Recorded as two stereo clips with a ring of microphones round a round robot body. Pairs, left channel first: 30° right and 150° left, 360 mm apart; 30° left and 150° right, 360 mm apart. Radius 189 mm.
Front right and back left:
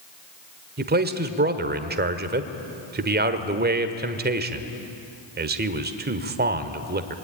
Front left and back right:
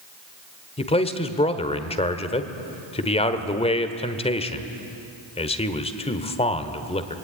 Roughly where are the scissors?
No scissors in this recording.